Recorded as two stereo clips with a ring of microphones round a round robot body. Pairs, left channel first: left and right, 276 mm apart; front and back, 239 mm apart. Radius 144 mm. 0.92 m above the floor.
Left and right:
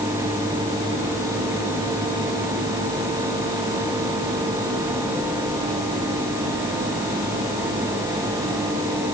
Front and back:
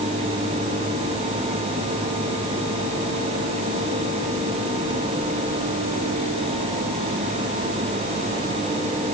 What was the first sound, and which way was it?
Only background noise.